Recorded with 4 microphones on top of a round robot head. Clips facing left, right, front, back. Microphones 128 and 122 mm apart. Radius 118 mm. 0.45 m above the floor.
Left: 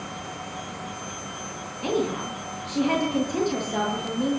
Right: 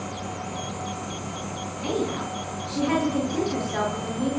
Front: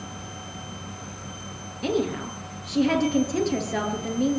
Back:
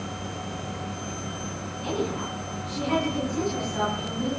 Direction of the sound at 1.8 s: 15° left.